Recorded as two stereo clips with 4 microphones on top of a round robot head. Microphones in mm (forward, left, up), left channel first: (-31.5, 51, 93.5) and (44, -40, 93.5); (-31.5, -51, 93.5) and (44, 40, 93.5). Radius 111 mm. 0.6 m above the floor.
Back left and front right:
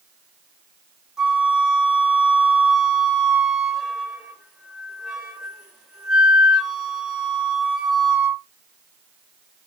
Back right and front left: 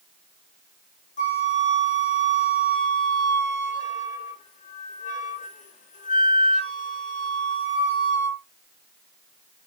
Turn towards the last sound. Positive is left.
turn(degrees=-135)